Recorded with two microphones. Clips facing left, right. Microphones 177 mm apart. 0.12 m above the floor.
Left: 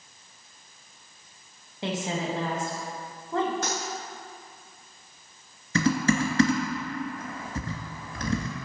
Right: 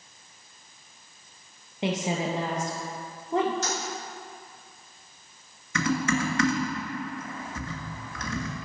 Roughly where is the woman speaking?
Centre.